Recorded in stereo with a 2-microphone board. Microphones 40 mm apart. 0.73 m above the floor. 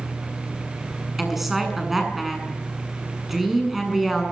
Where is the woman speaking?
5° right (ahead or behind), 7.5 m.